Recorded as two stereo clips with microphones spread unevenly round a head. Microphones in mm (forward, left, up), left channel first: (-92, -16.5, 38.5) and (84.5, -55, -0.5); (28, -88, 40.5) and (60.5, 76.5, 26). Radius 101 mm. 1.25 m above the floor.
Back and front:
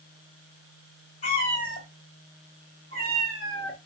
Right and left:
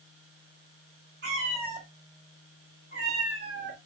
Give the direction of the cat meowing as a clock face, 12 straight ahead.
8 o'clock.